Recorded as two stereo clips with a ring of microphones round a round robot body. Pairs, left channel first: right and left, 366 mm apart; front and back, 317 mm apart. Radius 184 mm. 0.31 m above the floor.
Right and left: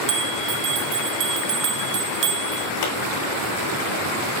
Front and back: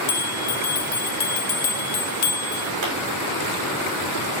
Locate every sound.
0.1 s a bell: 45° left, 0.6 m
2.8 s a pop: 135° right, 6 m